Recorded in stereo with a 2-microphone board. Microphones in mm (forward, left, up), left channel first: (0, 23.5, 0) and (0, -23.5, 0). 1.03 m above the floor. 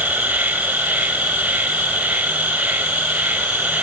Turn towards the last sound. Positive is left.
turn(degrees=-30)  # may be behind; listen again after turning